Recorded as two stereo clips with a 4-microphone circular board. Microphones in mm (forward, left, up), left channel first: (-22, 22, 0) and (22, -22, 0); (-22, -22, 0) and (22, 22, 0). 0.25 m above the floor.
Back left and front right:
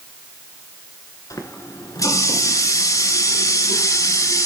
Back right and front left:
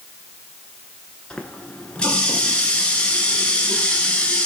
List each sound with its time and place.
1.3 s a running tap: 150° left, 2 m